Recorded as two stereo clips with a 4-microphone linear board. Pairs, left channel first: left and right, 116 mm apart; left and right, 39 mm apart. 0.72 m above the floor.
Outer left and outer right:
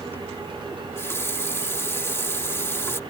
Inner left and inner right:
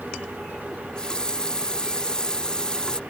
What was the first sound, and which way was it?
A running tap, 20° left (ahead or behind).